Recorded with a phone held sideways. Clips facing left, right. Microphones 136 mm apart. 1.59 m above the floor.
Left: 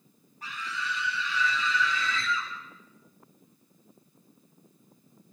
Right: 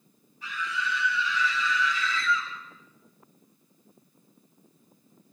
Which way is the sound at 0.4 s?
50° left (ahead or behind).